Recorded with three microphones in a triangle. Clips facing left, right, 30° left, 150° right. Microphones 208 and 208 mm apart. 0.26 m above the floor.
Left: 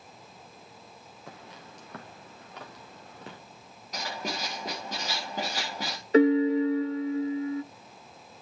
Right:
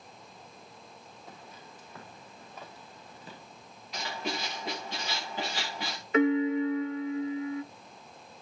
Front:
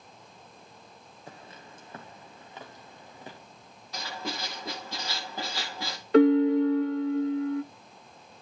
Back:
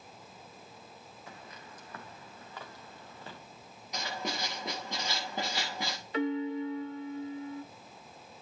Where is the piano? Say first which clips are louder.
Left 4 dB, front 13 dB; 40° left, 0.6 m.